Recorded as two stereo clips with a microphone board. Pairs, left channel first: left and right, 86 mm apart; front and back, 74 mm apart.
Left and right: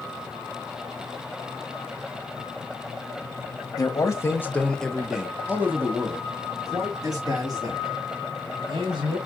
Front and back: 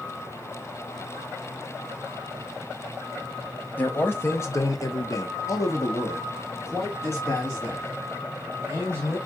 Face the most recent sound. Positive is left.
turn(degrees=-60)